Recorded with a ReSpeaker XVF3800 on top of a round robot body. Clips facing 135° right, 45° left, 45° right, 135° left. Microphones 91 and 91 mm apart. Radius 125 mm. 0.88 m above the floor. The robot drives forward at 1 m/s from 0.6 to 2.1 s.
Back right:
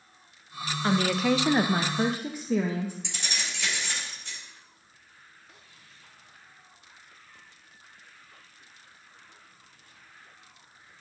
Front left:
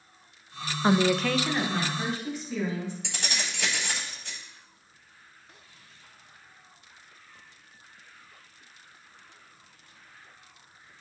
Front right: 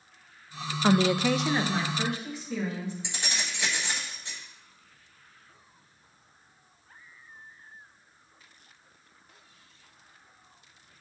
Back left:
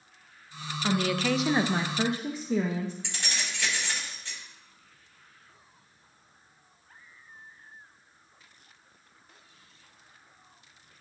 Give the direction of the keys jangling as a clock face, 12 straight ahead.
11 o'clock.